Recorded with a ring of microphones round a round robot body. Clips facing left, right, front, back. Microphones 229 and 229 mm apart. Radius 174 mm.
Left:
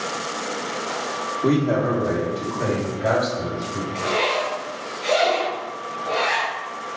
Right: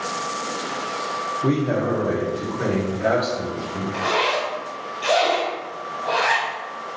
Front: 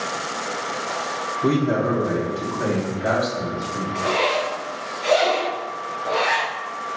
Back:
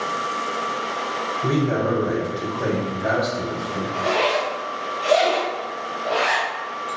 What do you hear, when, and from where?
1.4 s a man speaking: 10° left, 1.5 m; by 3.8 s 25° right, 2.5 m
3.9 s a zipper: 100° right, 1.3 m